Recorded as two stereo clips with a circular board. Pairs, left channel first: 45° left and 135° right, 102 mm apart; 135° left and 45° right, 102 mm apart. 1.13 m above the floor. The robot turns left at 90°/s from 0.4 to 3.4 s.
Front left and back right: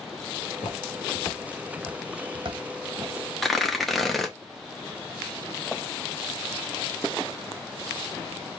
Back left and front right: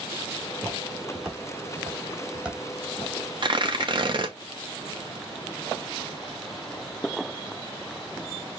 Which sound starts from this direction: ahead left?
Footsteps, at 0.6 s.